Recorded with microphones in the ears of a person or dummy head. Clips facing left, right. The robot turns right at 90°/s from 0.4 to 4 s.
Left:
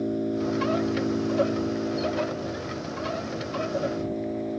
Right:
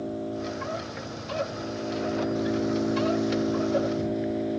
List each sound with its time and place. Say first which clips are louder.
0.0 s an engine running: left 5 dB; 30° left; by 4.6 s 5° right